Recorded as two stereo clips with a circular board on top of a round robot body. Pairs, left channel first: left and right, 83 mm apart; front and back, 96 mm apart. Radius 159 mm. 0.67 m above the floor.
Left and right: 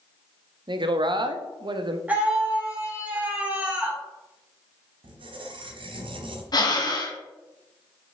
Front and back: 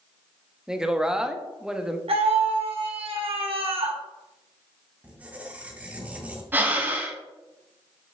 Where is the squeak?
105° right, 1.1 m.